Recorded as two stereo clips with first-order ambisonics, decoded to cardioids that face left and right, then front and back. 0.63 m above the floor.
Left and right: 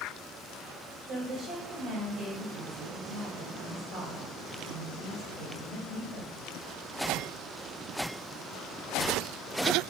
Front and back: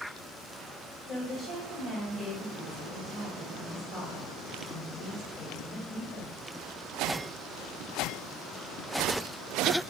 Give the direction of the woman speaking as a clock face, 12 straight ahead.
1 o'clock.